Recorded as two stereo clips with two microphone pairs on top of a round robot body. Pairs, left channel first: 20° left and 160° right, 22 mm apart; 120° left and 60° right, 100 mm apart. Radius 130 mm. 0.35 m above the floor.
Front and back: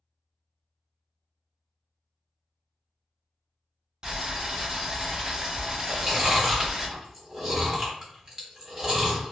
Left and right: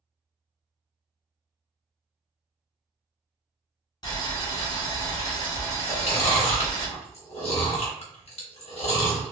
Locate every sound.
4.0 s boiling: 145° left, 1.6 m
5.9 s chewing: 130° left, 1.1 m